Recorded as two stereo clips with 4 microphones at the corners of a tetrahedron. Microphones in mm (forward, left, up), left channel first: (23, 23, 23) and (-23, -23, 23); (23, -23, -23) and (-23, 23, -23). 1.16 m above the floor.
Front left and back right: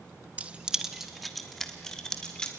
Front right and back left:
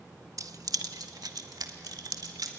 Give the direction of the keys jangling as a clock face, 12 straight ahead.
7 o'clock.